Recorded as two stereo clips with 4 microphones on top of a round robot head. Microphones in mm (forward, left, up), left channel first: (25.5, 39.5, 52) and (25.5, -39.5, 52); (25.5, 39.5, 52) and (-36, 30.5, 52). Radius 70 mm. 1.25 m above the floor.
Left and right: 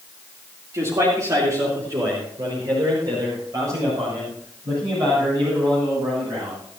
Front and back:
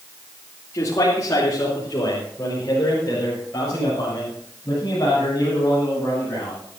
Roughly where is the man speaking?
Ahead right.